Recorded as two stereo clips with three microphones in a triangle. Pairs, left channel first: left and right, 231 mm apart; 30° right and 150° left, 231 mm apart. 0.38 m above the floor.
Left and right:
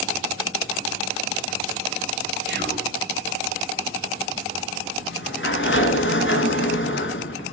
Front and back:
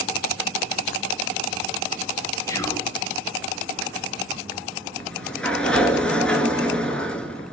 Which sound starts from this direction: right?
Whispering, at 2.5 s.